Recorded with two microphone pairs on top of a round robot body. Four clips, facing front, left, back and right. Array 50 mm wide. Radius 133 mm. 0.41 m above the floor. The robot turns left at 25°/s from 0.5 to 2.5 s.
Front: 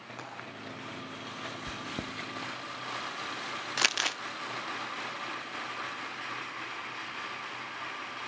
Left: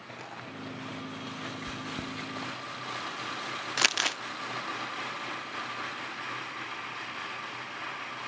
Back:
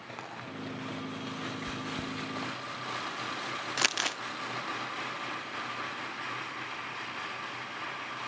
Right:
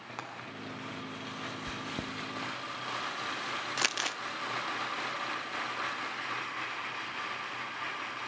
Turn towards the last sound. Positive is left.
turn(degrees=90)